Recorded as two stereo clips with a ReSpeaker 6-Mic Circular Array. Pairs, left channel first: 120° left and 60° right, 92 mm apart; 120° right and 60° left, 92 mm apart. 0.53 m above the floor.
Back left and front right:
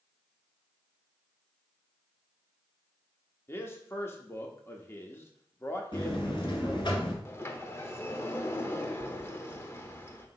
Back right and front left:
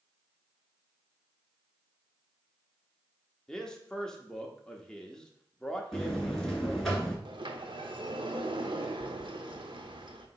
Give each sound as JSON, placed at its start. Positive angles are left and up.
{"t": 3.5, "sound": "a man speaking", "azimuth_deg": 160, "distance_m": 0.9}
{"t": 5.9, "sound": "a buzzer", "azimuth_deg": 150, "distance_m": 2.0}
{"t": 7.2, "sound": "a sliding door", "azimuth_deg": 65, "distance_m": 0.8}